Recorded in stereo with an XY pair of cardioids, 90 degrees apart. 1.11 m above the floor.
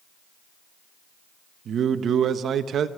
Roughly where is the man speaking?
Right.